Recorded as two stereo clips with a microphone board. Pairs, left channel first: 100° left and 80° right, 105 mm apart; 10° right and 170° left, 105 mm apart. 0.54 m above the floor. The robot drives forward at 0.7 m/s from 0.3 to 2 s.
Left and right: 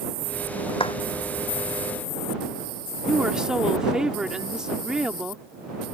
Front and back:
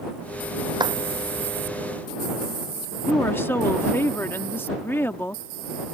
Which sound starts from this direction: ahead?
A woman speaking, at 3.1 s.